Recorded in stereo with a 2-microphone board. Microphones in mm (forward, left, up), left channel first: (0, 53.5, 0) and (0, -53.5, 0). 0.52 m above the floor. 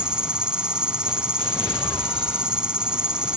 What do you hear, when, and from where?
0.0 s an insect: 10° right (ahead or behind)